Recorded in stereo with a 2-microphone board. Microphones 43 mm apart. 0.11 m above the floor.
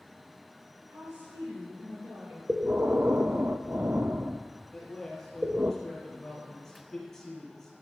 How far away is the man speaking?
About 2 m.